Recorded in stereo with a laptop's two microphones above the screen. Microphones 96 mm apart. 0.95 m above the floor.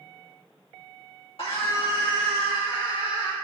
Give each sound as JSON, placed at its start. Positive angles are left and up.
{"t": 1.4, "sound": "a scream", "side_deg": 75, "distance_m": 2.0}